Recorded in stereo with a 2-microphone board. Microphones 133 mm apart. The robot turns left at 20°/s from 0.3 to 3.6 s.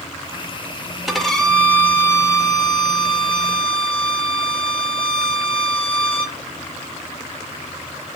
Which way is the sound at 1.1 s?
Straight behind.